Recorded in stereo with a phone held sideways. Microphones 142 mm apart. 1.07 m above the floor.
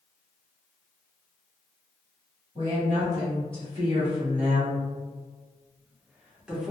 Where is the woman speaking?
40° right (ahead or behind), 1.6 m; by 6.7 s 5° right (ahead or behind), 1.2 m.